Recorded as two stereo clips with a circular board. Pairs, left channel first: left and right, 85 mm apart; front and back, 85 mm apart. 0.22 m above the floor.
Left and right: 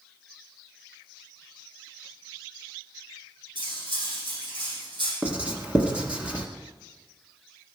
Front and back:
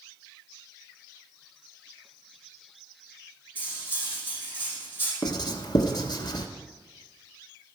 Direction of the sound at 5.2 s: 15° right.